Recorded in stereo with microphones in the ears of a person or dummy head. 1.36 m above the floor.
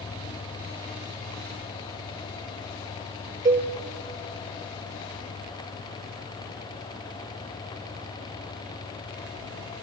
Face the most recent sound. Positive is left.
turn(degrees=-25)  # may be behind; listen again after turning